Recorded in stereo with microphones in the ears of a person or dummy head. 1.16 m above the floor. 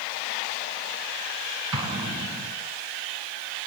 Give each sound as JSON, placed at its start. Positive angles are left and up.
{"t": 1.7, "sound": "an explosion", "side_deg": -30, "distance_m": 3.5}